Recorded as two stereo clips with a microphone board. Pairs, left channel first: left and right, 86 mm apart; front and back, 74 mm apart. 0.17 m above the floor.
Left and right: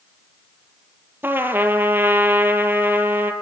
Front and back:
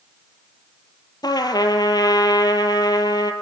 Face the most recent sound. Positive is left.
turn(degrees=-25)